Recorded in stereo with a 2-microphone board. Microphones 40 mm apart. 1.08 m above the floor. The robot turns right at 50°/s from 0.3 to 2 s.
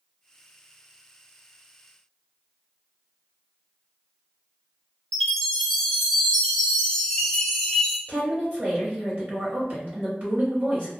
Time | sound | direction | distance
5.1 | a chime | 10° left (ahead or behind) | 0.6 m
8.1 | a woman speaking | 40° right (ahead or behind) | 0.9 m